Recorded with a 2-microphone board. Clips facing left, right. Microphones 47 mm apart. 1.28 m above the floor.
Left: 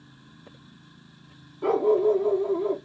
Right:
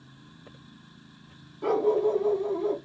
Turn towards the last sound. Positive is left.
turn(degrees=10)  # may be behind; listen again after turning